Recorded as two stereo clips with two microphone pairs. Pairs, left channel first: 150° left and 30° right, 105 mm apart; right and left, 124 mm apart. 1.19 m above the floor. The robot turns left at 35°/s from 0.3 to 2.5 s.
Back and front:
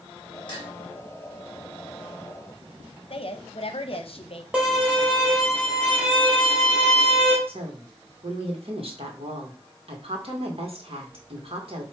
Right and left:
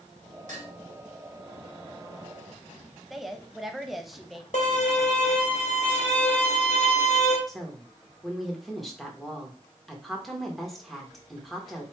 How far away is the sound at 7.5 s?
About 2.0 m.